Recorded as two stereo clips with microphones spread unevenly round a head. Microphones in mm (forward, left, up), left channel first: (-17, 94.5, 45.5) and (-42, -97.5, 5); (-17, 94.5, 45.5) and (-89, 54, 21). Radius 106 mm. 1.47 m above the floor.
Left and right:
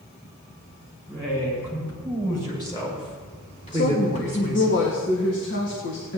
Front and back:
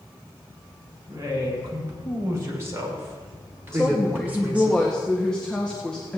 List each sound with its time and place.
1.1 s a woman speaking: 160° left, 6.5 m; by 4.7 s 130° left, 4 m
3.7 s a woman speaking: 110° left, 1.8 m